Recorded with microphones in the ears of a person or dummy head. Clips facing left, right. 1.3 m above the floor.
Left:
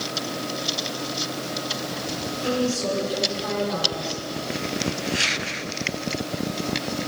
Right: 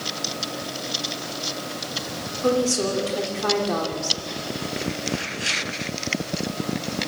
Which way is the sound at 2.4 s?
85° right.